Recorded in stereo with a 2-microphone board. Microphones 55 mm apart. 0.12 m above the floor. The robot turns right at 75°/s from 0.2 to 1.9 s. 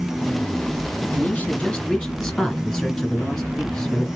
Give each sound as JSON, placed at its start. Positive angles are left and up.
{"t": 1.1, "sound": "a man speaking", "side_deg": 25, "distance_m": 1.8}